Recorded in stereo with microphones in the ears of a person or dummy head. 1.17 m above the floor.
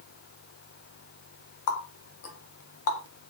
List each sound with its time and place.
1.7 s a running tap: 65° left (ahead or behind), 0.7 m